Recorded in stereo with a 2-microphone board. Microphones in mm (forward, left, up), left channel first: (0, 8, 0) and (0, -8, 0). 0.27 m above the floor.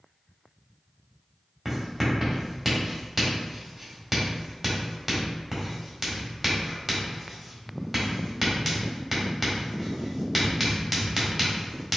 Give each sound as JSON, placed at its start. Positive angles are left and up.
{"t": 1.6, "sound": "writing", "side_deg": -5, "distance_m": 1.5}